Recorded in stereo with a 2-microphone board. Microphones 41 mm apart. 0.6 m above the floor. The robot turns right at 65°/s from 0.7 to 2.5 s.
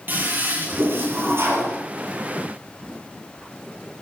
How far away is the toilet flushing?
About 7 m.